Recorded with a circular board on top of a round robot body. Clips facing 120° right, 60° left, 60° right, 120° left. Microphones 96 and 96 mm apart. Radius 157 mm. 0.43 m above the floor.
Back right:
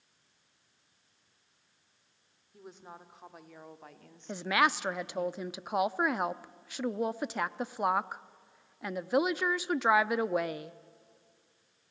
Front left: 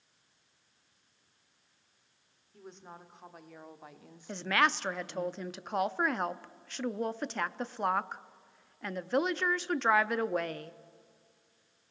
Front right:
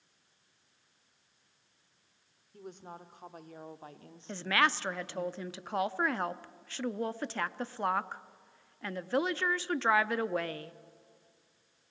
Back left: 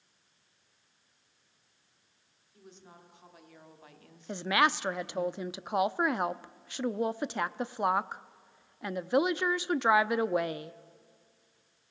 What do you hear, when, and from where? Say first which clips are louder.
2.5 s a woman speaking: even, front right 8 dB; 40° right, 2 m; by 5.3 s 30° left, 1.2 m
4.3 s a woman speaking: back right 1 dB, back left 2 dB; 170° left, 0.7 m